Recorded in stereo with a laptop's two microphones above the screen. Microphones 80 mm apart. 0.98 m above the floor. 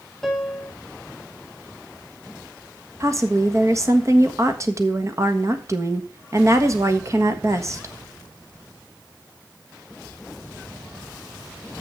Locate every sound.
0.2 s a piano: 5° left (ahead or behind), 1.0 m
3.0 s a woman speaking: 40° right (ahead or behind), 1.5 m